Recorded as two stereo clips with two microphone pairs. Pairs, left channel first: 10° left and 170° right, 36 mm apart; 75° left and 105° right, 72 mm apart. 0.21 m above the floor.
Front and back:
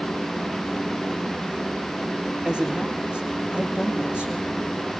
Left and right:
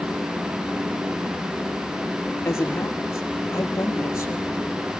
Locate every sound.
2.5 s a man speaking: 125° left, 5 m